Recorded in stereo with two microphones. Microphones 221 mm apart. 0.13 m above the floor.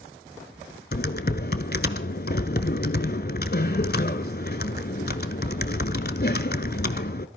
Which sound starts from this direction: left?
Typing on a keyboard, at 0.9 s.